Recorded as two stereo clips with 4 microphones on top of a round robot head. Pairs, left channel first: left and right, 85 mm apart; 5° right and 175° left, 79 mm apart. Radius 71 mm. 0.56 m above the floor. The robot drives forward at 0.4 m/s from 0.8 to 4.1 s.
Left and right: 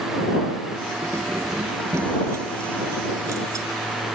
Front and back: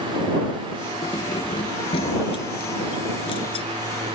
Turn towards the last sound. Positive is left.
turn(degrees=-30)